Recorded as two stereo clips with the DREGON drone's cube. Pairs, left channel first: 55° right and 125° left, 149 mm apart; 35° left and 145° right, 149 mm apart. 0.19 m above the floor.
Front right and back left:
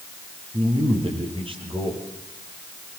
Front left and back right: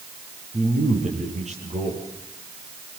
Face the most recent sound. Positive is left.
turn(degrees=175)